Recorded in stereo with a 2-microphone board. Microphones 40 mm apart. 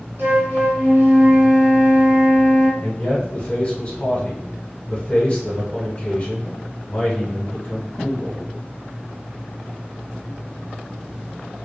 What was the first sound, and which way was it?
A flute, 80° right.